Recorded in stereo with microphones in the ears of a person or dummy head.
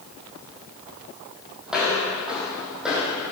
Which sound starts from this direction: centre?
Footsteps, at 1.7 s.